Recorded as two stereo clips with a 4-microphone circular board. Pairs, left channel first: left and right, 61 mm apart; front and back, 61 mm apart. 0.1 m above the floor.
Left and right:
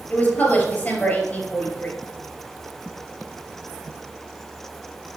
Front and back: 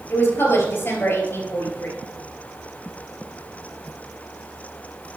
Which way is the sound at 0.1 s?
40° left.